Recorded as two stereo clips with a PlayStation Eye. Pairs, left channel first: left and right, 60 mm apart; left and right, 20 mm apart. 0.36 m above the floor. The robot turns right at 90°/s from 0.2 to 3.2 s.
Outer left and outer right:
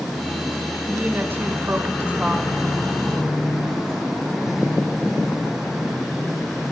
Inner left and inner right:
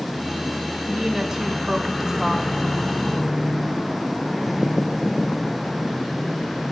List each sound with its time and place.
0.9 s a woman speaking: 150° right, 1.5 m; by 2.5 s 5° right, 1.5 m